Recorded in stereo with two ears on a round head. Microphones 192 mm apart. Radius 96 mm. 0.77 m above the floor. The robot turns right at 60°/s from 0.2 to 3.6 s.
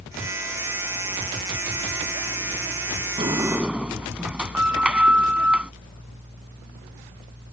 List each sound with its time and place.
3.2 s a sliding door: 25° right (ahead or behind); by 5.7 s 5° right (ahead or behind)